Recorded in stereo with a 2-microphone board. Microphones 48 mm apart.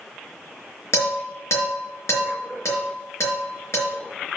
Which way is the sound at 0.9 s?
70° left (ahead or behind).